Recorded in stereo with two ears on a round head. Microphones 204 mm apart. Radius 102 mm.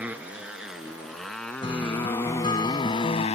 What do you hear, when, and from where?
0.0 s a motorcycle: 5° right (ahead or behind); by 3.4 s 30° left (ahead or behind)
1.6 s a guitar: 25° left (ahead or behind)